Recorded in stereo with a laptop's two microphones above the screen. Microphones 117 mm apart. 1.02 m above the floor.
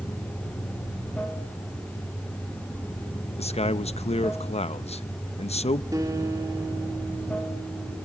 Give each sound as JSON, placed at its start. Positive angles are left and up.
{"t": 0.0, "sound": "running water", "side_deg": 10, "distance_m": 7.0}
{"t": 3.4, "sound": "a man speaking", "side_deg": 65, "distance_m": 0.7}
{"t": 5.9, "sound": "a guitar", "side_deg": -30, "distance_m": 3.0}